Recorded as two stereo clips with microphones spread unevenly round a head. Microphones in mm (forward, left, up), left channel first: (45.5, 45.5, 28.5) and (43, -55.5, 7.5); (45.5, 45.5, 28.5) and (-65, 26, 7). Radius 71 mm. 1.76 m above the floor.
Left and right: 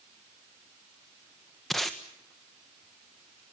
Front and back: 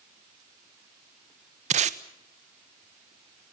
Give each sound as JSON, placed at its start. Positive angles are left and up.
{"t": 1.7, "sound": "tape being pulled", "azimuth_deg": 170, "distance_m": 1.2}